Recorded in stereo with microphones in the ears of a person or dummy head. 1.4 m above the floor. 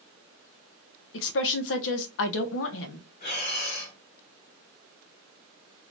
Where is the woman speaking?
70° left (ahead or behind), 0.7 m.